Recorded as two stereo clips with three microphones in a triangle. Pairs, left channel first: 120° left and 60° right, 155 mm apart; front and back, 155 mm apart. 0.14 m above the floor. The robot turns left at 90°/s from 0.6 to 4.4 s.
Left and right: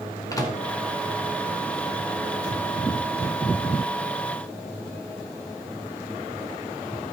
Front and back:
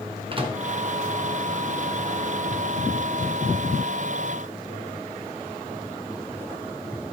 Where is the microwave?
170° left, 1.6 m.